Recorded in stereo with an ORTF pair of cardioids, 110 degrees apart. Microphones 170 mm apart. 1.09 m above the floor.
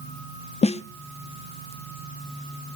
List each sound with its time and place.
0.6 s a snare drum: 40° left, 0.9 m